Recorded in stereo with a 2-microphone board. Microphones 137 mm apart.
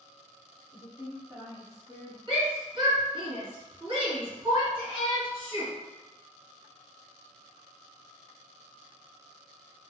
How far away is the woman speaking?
About 1.4 m.